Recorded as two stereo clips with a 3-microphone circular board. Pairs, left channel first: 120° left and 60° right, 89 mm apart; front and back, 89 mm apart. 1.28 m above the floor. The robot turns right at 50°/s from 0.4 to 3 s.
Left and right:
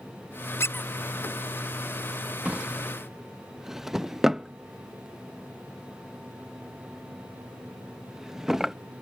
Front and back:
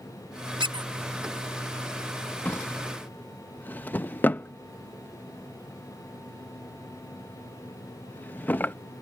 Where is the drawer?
15° right; by 8.8 s 15° left.